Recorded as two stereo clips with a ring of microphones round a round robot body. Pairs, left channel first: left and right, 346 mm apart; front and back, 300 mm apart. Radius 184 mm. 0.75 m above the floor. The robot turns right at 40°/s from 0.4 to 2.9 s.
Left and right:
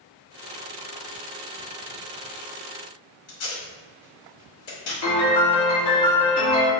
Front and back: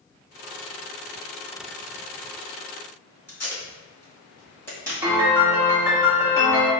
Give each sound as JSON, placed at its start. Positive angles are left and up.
{"t": 3.3, "sound": "tape being pulled", "azimuth_deg": 80, "distance_m": 1.6}
{"t": 5.0, "sound": "a piano", "azimuth_deg": 100, "distance_m": 1.5}